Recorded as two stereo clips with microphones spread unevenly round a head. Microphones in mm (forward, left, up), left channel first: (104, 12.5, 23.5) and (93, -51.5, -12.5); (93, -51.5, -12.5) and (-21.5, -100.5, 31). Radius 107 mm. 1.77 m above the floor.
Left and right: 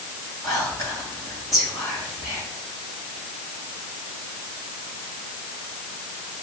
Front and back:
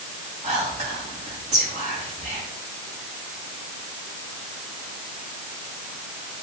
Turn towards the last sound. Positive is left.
turn(degrees=145)